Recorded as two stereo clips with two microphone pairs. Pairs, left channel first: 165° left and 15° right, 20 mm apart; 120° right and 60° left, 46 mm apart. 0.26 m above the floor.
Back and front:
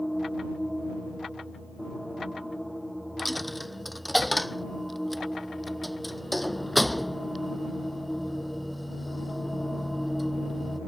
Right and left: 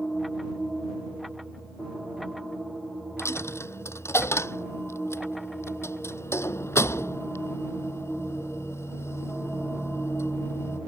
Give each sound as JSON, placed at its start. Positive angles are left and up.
{"t": 3.2, "sound": "a dropped coin", "azimuth_deg": -105}